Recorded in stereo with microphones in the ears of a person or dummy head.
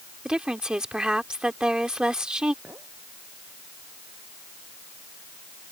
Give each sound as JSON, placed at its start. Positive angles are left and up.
{"t": 0.2, "sound": "a woman speaking", "side_deg": -5}
{"t": 2.6, "sound": "a clink", "side_deg": -10}